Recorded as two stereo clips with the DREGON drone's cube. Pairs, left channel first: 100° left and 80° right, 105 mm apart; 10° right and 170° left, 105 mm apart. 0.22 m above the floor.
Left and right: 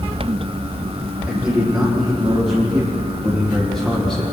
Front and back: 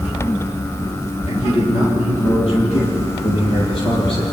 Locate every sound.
1.3 s a man speaking: 5° left, 9.5 m; by 4.2 s 15° left, 9 m